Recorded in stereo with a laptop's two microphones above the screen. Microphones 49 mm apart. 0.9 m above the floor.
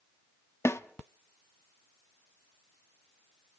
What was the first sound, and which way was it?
A snare drum, 65° left (ahead or behind).